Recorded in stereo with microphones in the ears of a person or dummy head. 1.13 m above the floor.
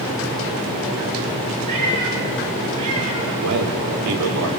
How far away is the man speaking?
About 3.5 m.